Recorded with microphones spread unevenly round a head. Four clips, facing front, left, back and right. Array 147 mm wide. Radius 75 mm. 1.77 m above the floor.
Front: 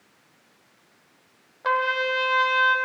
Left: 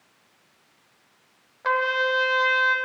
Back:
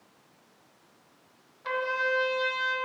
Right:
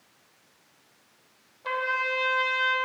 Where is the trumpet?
30° left, 0.8 m.